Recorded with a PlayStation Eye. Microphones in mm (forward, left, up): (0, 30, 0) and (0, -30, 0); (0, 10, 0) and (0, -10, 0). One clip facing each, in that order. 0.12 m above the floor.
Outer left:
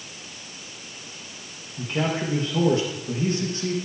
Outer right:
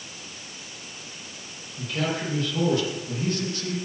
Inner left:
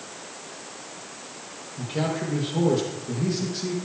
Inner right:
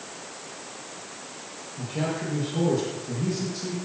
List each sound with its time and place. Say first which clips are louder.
1.8 s a man speaking: outer left 2 dB, inner left 2 dB; 30° left (ahead or behind), 4.5 m